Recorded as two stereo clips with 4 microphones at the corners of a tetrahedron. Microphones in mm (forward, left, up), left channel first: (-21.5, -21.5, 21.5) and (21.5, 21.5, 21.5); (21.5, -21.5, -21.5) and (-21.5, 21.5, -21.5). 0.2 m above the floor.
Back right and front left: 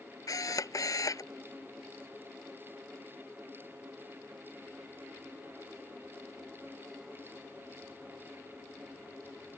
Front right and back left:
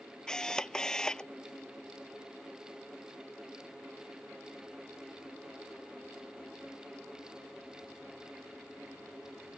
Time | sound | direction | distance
0.3 | a camera shutter | 125° right | ?